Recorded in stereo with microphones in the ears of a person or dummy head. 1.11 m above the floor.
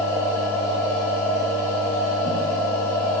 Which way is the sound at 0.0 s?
20° left (ahead or behind).